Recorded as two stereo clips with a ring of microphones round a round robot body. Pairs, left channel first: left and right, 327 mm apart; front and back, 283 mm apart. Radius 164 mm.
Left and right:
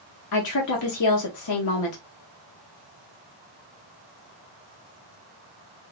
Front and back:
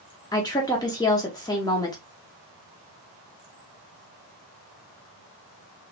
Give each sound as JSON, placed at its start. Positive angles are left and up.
{"t": 0.3, "sound": "a woman speaking", "azimuth_deg": 75, "distance_m": 0.9}